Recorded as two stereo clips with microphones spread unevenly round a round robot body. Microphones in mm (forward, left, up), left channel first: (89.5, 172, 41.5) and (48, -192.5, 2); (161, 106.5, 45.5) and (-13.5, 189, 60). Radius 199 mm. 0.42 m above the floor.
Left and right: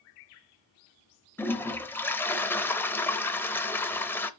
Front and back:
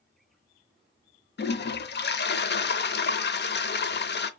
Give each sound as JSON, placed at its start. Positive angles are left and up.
{"t": 1.4, "sound": "a toilet flushing", "azimuth_deg": -5, "distance_m": 0.8}